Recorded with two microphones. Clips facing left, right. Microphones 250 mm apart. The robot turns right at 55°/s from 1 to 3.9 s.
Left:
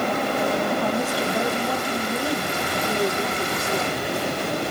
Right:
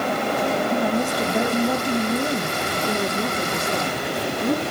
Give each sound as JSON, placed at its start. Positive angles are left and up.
{"t": 0.7, "sound": "a woman speaking", "side_deg": -15, "distance_m": 1.4}
{"t": 2.8, "sound": "a woman speaking", "azimuth_deg": -165, "distance_m": 8.0}